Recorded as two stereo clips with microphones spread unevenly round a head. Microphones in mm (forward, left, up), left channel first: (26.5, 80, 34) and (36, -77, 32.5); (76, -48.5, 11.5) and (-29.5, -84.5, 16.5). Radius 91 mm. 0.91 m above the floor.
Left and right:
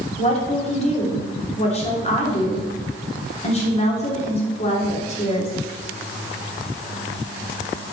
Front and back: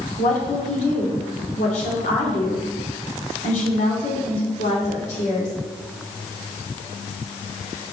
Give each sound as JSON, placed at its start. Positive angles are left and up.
{"t": 0.2, "sound": "a woman speaking", "azimuth_deg": 45, "distance_m": 3.0}